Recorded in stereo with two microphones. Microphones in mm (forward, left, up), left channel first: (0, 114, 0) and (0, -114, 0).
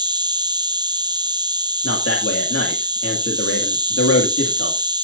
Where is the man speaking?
85° left, 2.5 m.